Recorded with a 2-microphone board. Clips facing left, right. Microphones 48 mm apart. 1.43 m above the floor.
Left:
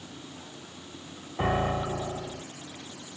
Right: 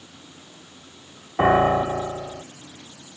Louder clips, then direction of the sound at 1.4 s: Right 10 dB; 40° right (ahead or behind).